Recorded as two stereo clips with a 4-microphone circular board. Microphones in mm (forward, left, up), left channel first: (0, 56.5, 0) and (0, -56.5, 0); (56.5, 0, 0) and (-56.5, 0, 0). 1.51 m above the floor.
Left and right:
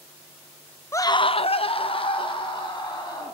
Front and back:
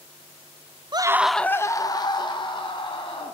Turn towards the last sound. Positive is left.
turn(degrees=40)